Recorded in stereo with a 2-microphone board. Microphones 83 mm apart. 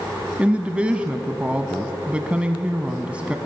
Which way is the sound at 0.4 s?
10° right (ahead or behind).